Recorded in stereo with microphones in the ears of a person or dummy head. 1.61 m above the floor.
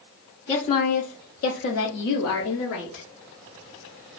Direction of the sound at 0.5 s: 20° left (ahead or behind).